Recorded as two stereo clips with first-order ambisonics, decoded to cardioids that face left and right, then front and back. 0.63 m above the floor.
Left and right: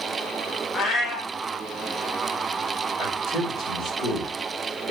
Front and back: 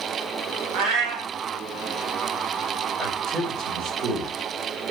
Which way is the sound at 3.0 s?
130° left.